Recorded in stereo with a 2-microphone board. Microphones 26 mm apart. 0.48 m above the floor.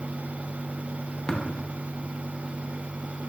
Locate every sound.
1.3 s tapping: 25° left (ahead or behind), 0.7 m